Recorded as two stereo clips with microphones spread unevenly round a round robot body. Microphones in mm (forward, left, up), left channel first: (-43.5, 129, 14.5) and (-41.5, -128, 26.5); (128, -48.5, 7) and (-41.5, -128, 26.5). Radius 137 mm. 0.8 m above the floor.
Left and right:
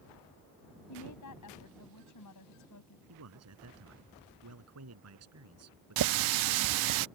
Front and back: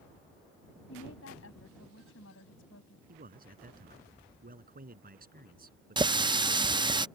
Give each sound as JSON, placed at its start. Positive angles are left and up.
{"t": 0.9, "sound": "a woman speaking", "azimuth_deg": 65}
{"t": 3.1, "sound": "a man speaking", "azimuth_deg": -115}
{"t": 6.0, "sound": "a running tap", "azimuth_deg": -85}